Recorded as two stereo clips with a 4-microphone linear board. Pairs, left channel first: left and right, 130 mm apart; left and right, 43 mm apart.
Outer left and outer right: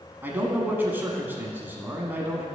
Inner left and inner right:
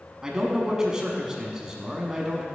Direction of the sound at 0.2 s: 15° right (ahead or behind).